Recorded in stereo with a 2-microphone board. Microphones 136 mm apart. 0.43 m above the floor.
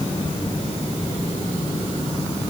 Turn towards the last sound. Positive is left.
No sound to turn to.